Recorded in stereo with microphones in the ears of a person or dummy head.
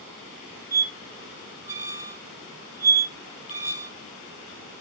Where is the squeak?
15° right (ahead or behind), 1.3 m.